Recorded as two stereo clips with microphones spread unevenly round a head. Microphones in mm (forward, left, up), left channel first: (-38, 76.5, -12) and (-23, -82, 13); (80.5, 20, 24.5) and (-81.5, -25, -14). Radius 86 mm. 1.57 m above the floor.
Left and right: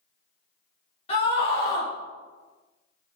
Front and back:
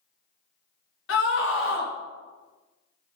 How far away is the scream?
About 2.5 m.